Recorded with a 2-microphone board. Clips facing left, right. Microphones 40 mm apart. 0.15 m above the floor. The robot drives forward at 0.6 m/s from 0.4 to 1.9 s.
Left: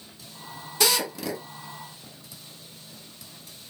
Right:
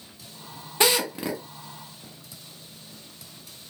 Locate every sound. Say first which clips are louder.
0.8 s a drill: right 2 dB; 30° right (ahead or behind), 1.1 m; by 1.4 s 25° right (ahead or behind), 1.1 m